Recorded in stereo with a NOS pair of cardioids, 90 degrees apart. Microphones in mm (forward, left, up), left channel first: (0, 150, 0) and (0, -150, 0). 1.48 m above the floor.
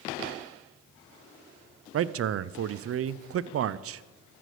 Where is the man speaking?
50° right, 0.6 m.